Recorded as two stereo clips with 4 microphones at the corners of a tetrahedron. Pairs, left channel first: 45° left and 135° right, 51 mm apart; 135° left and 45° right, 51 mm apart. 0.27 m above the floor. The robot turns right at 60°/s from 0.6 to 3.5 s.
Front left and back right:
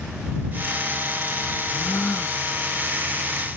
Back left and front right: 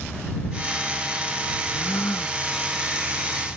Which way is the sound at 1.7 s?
80° left.